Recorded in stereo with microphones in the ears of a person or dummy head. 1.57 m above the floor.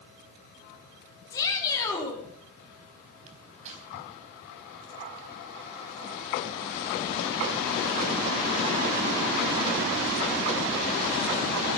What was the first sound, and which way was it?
A shout, 15° left (ahead or behind).